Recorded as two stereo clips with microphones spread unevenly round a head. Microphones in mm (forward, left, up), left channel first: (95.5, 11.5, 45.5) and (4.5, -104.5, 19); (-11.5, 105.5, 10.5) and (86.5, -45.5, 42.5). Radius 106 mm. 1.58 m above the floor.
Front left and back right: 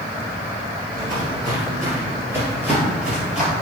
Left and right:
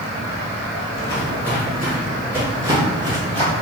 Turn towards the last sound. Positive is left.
turn(degrees=-30)